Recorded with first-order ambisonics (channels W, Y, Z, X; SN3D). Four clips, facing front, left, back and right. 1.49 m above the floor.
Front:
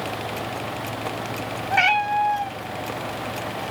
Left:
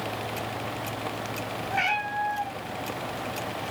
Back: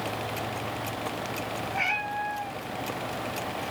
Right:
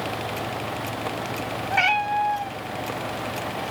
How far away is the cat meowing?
About 3 m.